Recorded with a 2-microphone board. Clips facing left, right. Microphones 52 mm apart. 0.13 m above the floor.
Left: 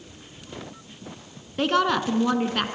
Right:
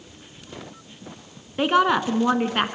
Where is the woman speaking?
15° right (ahead or behind), 1.1 m; by 2.8 s 25° right (ahead or behind), 1.2 m.